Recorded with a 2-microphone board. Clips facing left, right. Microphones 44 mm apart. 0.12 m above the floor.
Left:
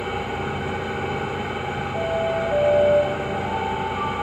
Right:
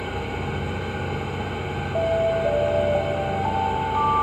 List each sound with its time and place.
0.0 s an engine running: 65° left (ahead or behind), 3.5 m
1.9 s an alarm: 45° right (ahead or behind), 2.5 m